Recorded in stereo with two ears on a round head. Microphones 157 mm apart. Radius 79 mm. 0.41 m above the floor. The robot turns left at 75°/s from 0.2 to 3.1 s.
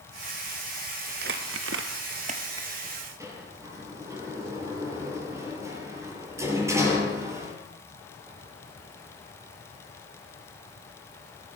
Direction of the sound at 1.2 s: 55° right (ahead or behind).